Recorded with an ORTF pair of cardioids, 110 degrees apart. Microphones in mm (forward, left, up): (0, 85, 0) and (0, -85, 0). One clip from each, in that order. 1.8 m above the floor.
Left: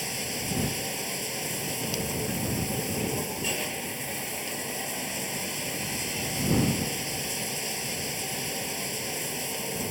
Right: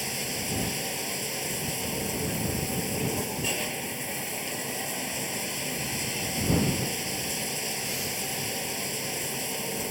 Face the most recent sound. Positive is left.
turn(degrees=-5)